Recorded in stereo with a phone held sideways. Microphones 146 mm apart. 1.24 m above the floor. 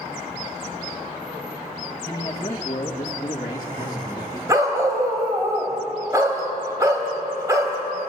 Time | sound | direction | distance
2.0 | a man speaking | 20° left (ahead or behind) | 1.8 m
4.5 | a dog barking | 20° right (ahead or behind) | 3.5 m